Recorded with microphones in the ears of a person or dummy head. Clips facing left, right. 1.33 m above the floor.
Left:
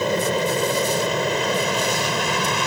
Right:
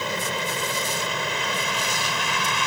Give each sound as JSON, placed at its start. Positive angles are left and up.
{"t": 0.0, "sound": "an aircraft", "side_deg": 45}